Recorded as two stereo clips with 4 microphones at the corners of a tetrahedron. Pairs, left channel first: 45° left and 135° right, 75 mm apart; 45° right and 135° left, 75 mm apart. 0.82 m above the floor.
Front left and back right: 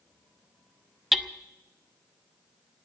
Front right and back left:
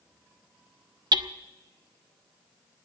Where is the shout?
I don't hear a shout.